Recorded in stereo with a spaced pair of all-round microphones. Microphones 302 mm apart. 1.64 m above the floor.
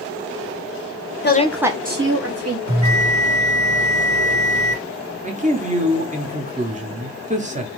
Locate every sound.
1.2 s a woman speaking: 35° left (ahead or behind), 0.6 m; by 2.6 s 60° right (ahead or behind), 1.2 m
2.7 s a bell: 55° right (ahead or behind), 1.5 m
5.2 s a man speaking: 25° right (ahead or behind), 0.7 m